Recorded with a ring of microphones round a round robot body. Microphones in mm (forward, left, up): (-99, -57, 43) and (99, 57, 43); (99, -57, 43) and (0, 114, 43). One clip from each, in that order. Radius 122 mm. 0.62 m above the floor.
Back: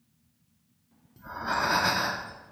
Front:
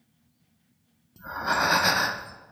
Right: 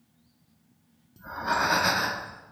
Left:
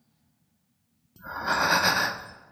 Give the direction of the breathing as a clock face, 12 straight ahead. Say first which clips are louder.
Front 4 dB, left 1 dB; 9 o'clock.